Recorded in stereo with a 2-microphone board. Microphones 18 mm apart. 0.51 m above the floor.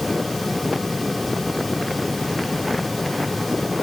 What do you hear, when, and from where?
Only background noise.